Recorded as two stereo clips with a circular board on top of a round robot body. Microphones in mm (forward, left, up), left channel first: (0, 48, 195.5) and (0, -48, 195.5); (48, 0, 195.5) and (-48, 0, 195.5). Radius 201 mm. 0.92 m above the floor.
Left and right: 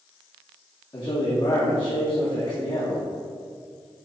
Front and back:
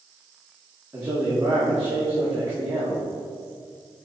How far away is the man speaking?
About 1.7 m.